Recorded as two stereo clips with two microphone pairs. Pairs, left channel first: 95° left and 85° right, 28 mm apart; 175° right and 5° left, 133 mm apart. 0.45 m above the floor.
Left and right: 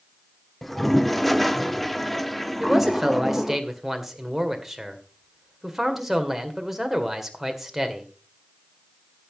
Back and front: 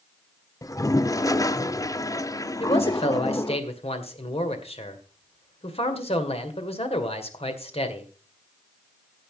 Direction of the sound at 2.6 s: 165° right.